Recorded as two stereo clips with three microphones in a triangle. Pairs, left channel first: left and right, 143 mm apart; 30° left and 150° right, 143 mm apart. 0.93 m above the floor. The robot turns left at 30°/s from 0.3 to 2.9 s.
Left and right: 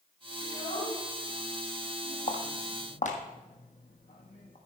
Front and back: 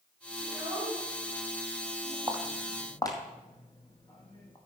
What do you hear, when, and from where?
0.4 s a child speaking: 150° left, 5 m; by 2.2 s 95° left, 5 m
2.3 s footsteps: 115° left, 1.4 m; by 4.6 s 85° left, 2.5 m